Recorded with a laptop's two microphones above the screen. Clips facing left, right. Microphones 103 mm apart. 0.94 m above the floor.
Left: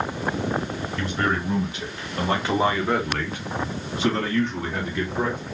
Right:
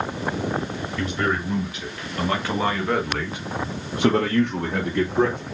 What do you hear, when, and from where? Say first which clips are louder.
1.0 s a man speaking: right 1 dB; 40° left (ahead or behind), 2.5 m; by 5.4 s 70° right (ahead or behind), 2.0 m